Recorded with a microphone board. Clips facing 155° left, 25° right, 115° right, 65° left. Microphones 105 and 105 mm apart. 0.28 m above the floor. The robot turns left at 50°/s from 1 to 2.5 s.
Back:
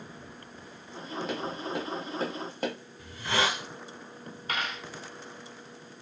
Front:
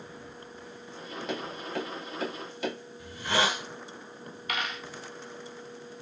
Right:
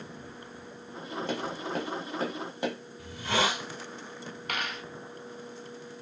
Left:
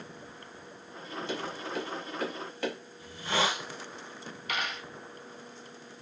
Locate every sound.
1.3 s tapping: 115° right, 0.9 m; by 2.8 s 175° right, 0.9 m
3.0 s a hiss: 105° right, 1.3 m
4.5 s a dropped coin: 150° right, 1.0 m